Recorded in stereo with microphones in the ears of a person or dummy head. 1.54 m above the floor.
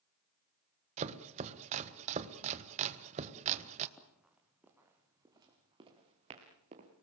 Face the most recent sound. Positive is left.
turn(degrees=-30)  # may be behind; listen again after turning